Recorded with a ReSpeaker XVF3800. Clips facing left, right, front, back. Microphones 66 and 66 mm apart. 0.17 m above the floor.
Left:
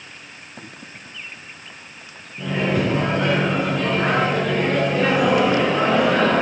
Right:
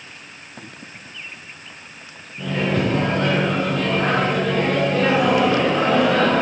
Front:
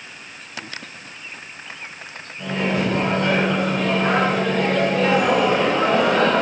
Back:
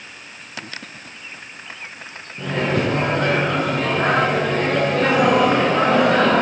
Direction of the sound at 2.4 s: 160° left.